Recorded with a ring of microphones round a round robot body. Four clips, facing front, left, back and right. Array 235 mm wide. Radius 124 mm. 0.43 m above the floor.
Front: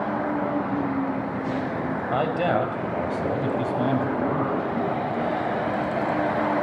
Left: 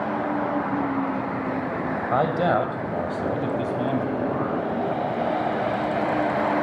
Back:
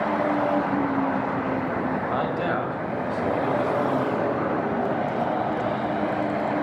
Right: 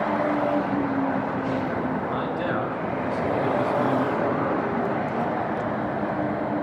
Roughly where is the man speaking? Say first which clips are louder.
Left 5 dB, front 6 dB; left.